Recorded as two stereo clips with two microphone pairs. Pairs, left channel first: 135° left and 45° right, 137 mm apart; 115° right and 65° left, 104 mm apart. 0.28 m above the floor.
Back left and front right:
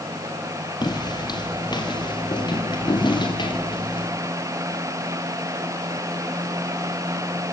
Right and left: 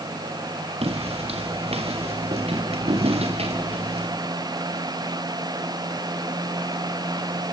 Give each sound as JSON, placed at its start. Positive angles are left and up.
{"t": 0.8, "sound": "footsteps", "azimuth_deg": 80, "distance_m": 3.0}